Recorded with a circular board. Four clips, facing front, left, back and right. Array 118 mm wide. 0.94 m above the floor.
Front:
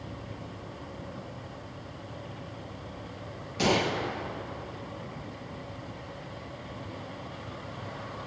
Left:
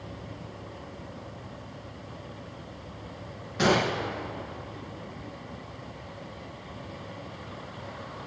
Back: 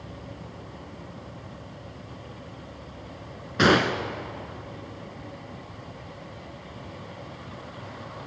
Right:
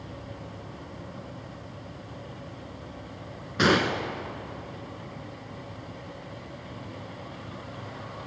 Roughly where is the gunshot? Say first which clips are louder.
Right 1 dB, back 6 dB; behind right.